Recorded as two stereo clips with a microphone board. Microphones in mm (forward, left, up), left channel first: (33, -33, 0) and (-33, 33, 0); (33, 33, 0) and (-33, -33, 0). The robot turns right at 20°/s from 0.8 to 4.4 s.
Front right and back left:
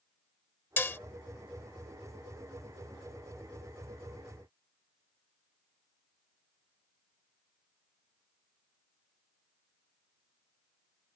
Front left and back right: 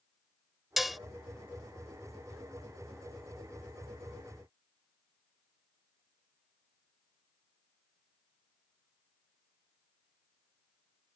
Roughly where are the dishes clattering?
Ahead right.